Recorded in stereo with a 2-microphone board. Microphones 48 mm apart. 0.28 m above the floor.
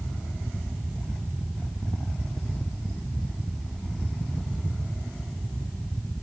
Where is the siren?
I don't hear a siren.